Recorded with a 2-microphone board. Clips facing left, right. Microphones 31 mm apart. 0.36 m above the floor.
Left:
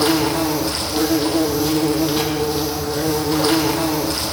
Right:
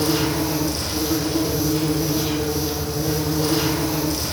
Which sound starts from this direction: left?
An insect, at 0.0 s.